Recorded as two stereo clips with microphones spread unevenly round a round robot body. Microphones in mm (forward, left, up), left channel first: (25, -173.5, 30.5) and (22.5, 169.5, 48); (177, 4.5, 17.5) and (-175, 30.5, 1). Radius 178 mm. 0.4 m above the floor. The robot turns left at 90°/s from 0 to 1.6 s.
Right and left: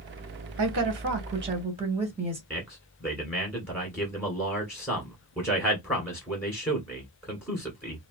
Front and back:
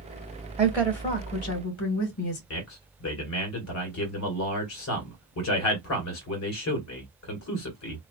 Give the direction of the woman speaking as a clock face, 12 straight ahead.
9 o'clock.